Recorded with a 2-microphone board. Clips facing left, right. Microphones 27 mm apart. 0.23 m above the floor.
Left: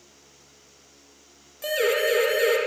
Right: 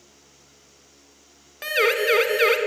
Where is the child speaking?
No child speaking in this recording.